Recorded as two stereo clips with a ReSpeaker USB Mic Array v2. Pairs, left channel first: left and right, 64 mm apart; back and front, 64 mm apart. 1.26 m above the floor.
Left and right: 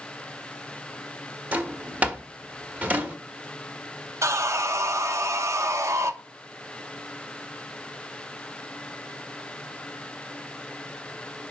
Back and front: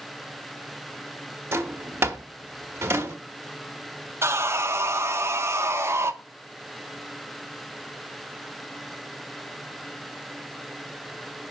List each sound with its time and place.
1.5 s a drawer: 35° right, 1.0 m
4.2 s sawing: 50° right, 0.6 m